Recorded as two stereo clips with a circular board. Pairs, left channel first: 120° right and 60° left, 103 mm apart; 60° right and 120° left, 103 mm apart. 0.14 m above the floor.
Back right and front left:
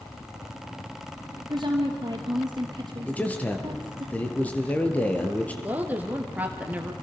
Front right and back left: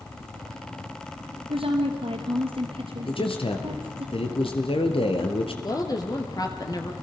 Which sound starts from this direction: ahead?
A woman speaking, at 5.6 s.